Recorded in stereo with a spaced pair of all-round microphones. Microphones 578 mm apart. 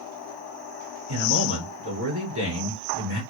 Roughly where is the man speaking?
Right.